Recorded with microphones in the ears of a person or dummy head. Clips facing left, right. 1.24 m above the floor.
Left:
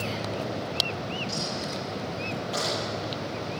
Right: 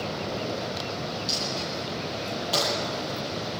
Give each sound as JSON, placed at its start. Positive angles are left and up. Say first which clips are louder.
{"t": 1.3, "sound": "a dropped coin", "louder": "even", "side_deg": -60, "distance_m": 9.5}